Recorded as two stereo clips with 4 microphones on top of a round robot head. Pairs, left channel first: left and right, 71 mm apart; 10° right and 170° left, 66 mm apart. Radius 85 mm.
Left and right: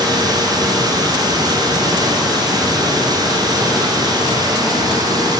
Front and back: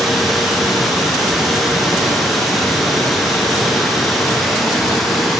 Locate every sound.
0.0 s running water: 100° right, 1.0 m